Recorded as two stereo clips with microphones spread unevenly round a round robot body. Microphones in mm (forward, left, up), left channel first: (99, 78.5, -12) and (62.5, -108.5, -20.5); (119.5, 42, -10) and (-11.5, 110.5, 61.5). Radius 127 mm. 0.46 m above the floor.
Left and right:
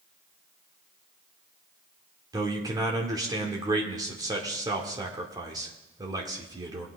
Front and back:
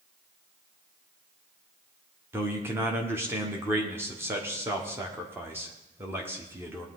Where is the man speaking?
85° right, 1.3 m.